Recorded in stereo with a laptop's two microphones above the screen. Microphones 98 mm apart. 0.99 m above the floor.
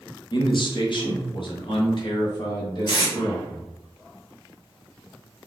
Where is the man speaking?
50° left (ahead or behind), 1.0 m; by 3.6 s 45° left (ahead or behind), 2 m.